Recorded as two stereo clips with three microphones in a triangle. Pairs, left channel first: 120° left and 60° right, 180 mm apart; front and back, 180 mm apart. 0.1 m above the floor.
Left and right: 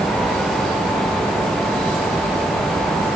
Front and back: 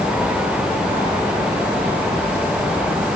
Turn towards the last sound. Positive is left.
No sound to turn to.